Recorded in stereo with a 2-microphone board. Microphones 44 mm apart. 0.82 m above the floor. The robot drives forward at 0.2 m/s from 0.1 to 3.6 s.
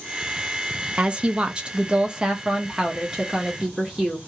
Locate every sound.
1.0 s a woman speaking: 25° right (ahead or behind), 0.5 m; by 4.2 s 15° right (ahead or behind), 0.8 m